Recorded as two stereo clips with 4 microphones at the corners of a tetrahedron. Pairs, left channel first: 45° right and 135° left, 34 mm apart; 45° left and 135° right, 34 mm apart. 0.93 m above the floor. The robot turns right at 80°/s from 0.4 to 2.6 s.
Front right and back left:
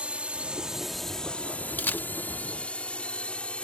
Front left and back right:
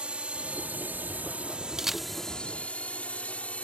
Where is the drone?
175° left; by 3.6 s 5° left.